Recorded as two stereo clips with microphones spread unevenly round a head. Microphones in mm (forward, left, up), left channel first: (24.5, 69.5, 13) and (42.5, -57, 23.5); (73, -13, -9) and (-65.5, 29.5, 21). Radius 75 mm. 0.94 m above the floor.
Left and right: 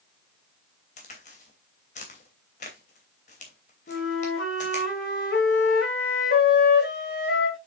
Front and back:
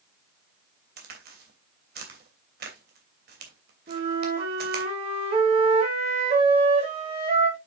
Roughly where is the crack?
Behind left.